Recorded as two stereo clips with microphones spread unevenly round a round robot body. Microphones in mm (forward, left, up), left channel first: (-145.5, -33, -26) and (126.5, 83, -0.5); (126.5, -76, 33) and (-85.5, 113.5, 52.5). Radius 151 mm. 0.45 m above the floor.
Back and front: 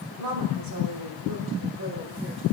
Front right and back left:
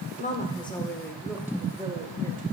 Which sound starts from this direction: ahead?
A woman speaking, at 0.2 s.